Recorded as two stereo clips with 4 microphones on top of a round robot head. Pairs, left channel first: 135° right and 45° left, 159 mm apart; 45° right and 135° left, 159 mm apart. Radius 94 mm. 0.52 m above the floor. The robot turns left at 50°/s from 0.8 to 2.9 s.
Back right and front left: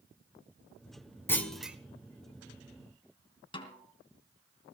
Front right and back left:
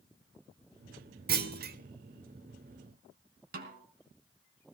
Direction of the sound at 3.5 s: 165° left.